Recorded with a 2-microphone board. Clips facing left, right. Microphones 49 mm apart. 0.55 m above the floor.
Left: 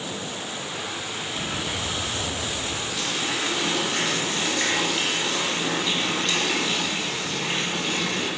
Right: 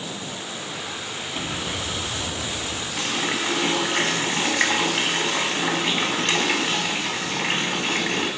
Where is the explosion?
25° right (ahead or behind), 4.5 m.